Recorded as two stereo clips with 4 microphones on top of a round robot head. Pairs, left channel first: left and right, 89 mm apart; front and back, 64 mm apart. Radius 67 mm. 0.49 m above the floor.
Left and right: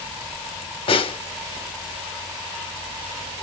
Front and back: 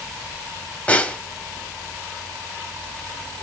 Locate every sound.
0.9 s a snare drum: 70° left, 0.6 m